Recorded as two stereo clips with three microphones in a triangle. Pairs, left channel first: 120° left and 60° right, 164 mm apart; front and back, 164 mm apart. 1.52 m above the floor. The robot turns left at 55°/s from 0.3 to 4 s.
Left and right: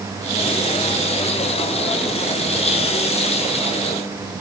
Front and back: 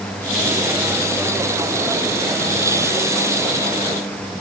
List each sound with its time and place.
Only background noise.